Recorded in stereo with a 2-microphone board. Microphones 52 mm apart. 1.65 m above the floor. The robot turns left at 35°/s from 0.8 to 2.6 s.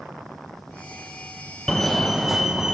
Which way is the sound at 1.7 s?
15° left.